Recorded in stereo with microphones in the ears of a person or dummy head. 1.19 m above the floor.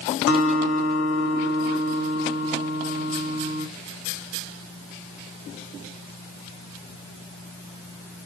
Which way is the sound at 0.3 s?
60° left (ahead or behind).